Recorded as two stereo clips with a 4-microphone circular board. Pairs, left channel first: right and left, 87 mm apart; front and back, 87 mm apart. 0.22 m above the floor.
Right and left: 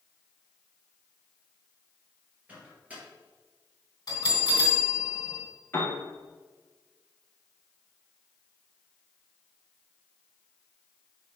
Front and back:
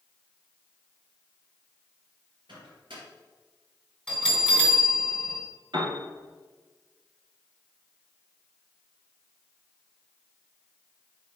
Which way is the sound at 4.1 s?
80° right.